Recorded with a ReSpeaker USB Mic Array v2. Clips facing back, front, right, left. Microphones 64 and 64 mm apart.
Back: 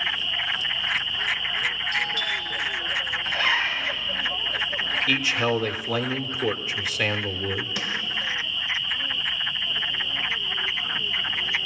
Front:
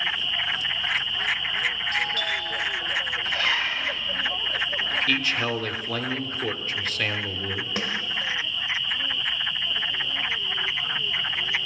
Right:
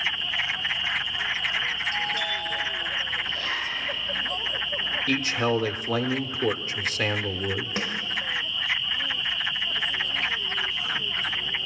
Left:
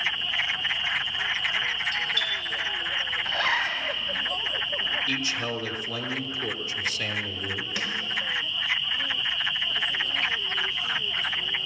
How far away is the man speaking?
About 1.0 m.